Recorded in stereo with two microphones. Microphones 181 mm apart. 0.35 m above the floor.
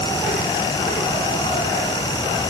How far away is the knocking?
I don't hear knocking.